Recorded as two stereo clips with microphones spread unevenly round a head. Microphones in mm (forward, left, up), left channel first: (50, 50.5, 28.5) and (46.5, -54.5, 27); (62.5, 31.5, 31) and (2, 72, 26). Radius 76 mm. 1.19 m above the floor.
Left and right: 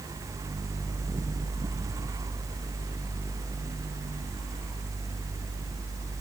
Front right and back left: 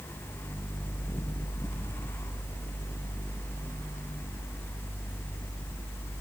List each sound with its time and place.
Only background noise.